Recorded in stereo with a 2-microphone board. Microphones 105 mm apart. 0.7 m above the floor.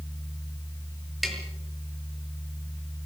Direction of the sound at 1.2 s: Centre (ahead or behind).